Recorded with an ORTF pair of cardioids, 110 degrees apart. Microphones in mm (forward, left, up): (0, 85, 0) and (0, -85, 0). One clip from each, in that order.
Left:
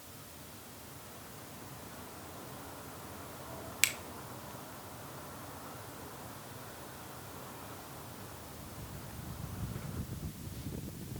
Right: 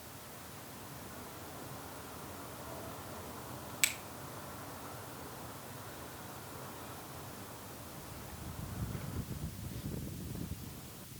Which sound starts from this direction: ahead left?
A finger snap, at 3.8 s.